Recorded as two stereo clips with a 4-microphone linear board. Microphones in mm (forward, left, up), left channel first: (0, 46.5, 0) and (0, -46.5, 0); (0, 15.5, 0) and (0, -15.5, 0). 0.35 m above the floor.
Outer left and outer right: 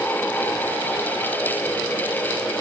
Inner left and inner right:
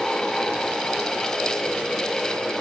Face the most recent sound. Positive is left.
No sound to turn to.